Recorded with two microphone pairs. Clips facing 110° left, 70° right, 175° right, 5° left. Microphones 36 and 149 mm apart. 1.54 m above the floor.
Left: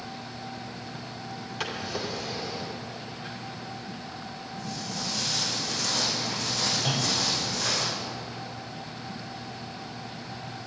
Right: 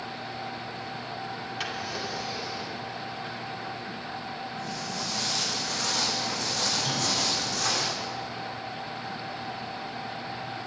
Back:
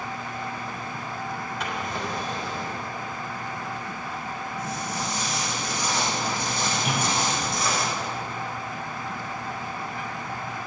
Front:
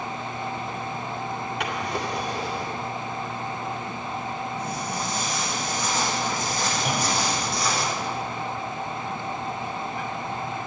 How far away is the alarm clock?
I don't hear an alarm clock.